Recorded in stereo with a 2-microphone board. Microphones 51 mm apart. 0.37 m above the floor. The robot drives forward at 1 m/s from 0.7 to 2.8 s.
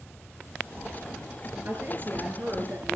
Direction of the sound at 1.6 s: 40° right (ahead or behind).